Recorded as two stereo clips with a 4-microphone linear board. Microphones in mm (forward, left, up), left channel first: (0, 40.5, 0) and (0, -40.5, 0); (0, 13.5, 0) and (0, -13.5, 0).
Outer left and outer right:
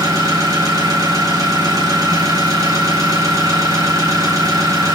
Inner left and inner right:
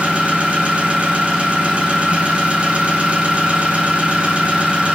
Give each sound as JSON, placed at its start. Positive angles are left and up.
{"t": 0.0, "sound": "an engine running", "side_deg": -45, "distance_m": 4.0}